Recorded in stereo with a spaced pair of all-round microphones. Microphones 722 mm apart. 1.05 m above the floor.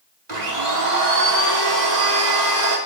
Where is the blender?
70° right (ahead or behind), 2.5 m.